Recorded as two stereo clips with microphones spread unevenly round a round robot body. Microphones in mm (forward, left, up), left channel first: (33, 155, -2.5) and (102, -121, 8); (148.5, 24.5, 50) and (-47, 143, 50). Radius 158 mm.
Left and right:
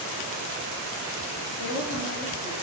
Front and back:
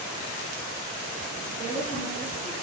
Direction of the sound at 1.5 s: 65° left.